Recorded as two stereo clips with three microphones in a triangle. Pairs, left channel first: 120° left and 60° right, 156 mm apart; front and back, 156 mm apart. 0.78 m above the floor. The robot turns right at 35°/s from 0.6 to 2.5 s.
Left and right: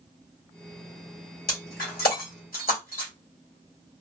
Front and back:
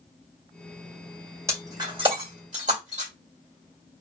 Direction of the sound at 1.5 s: 105° left.